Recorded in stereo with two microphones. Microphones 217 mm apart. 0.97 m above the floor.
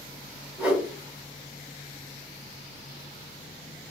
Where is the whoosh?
5° right (ahead or behind), 1.6 m.